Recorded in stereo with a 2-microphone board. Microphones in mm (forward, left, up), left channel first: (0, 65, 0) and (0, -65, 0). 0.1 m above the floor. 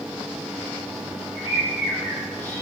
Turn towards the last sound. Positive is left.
turn(degrees=15)  # may be behind; listen again after turning